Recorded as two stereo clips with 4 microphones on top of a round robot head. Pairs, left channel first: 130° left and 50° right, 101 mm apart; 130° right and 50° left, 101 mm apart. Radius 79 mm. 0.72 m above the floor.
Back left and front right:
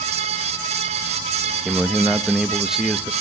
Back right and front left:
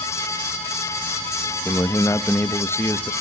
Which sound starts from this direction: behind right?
A man speaking, at 1.6 s.